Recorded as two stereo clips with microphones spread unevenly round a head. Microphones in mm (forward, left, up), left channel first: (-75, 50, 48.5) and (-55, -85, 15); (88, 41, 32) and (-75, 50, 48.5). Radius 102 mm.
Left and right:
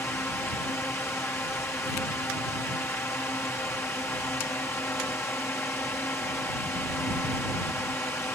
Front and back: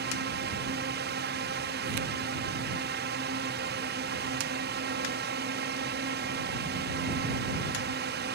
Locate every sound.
0.0 s a drone: 175° left